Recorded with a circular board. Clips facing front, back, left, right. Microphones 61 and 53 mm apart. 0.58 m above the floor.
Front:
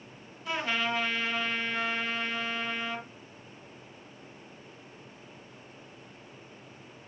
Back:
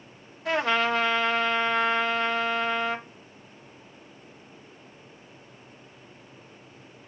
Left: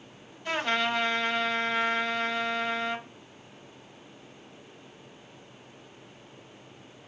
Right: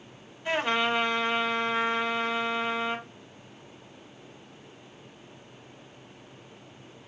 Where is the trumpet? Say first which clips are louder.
Back 7 dB, right 2 dB; 165° right, 0.9 m.